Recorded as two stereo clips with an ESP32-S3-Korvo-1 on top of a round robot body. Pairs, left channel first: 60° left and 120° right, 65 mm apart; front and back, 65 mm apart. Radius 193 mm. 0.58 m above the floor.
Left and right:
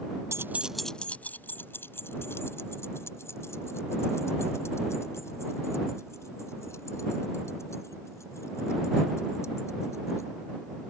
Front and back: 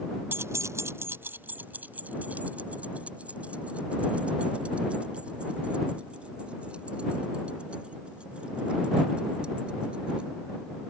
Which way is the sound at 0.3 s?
135° right.